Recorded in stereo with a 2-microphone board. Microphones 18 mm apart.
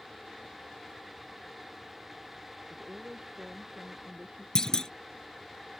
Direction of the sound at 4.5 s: 40° left (ahead or behind).